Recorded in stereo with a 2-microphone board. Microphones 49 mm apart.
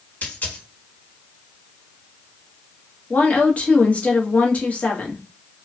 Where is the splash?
I don't hear a splash.